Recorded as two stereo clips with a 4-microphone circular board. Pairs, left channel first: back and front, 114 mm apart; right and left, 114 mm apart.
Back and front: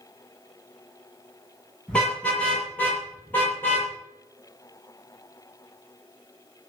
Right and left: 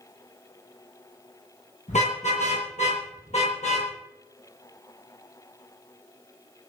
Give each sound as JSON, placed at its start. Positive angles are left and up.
{"t": 1.9, "sound": "a car horn", "azimuth_deg": -100, "distance_m": 8.5}